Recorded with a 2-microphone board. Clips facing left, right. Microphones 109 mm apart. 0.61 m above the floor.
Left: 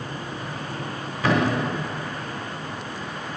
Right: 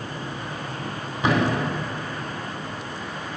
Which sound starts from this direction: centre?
A thud, at 1.2 s.